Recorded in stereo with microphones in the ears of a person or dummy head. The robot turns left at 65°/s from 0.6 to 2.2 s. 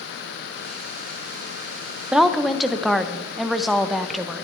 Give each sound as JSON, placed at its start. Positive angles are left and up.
{"t": 2.1, "sound": "a woman speaking", "side_deg": -5, "distance_m": 0.6}